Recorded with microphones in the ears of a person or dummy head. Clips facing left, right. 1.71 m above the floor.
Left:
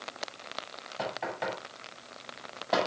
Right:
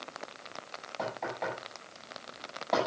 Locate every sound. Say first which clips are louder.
1.0 s knocking: left 1 dB; 10° left (ahead or behind), 9.5 m